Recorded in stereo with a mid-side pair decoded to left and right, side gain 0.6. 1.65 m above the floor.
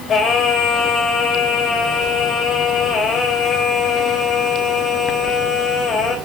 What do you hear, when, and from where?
0.1 s singing: 40° left, 4 m